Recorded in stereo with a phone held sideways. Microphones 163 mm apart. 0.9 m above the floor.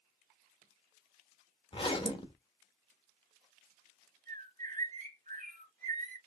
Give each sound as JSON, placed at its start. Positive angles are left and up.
{"t": 1.7, "sound": "a zipper", "side_deg": 30, "distance_m": 0.7}
{"t": 4.3, "sound": "a bird", "side_deg": -50, "distance_m": 1.1}